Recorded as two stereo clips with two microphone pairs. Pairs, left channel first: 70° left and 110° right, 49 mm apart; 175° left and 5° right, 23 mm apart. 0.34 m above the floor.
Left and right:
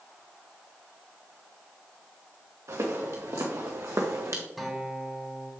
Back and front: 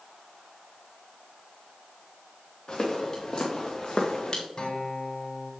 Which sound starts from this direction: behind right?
Footsteps, at 2.7 s.